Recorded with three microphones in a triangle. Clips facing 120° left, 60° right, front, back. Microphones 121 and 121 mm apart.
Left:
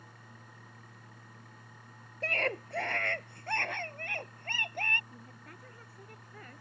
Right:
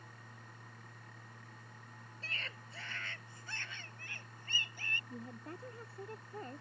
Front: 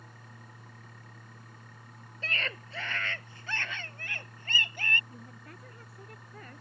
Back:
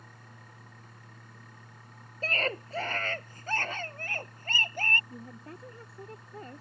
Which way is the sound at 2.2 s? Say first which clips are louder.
Left 18 dB, back 7 dB; 135° left.